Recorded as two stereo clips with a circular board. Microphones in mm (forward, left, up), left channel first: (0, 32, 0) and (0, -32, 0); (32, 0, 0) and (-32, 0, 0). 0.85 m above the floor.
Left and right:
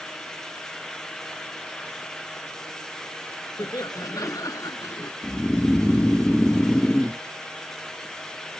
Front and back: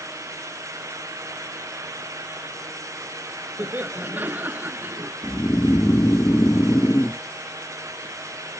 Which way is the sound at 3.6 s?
120° left.